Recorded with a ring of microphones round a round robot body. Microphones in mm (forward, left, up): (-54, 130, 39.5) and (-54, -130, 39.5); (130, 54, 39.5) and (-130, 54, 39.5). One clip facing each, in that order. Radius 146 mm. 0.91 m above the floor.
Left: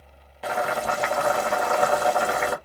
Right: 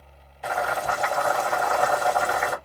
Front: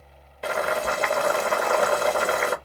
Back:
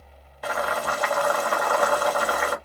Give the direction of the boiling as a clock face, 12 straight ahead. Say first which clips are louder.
Left 2 dB, front 2 dB; 10 o'clock.